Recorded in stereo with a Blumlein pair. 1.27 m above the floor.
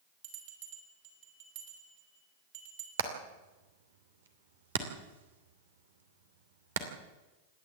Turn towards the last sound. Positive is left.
turn(degrees=-60)